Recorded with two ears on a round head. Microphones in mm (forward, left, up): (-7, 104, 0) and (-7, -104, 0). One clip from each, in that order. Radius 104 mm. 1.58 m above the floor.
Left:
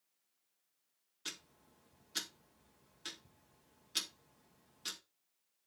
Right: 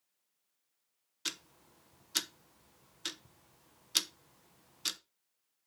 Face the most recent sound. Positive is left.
turn(degrees=-35)  # may be behind; listen again after turning